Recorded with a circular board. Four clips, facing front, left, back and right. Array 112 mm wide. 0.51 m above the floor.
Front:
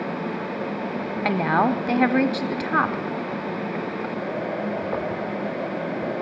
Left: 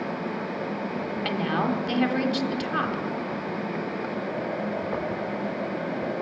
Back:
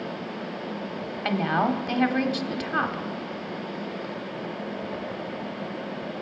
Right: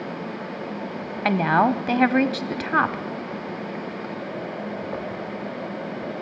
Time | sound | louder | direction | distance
1.2 | a woman speaking | right 8 dB, front 3 dB | 60° right | 1.1 m